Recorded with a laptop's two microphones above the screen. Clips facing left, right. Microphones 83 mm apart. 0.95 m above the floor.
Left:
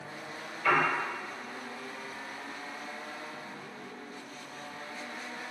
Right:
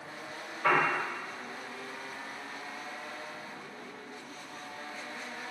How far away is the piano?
About 1.7 m.